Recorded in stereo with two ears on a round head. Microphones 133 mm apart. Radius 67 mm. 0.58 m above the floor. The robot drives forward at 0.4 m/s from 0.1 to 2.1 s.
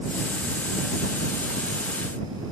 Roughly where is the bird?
No bird in this recording.